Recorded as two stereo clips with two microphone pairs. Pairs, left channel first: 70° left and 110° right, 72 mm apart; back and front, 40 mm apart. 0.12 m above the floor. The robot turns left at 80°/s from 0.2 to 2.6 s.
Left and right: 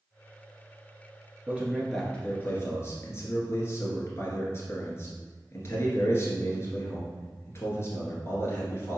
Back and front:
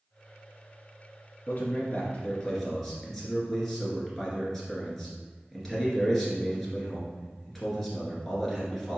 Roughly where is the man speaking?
Behind.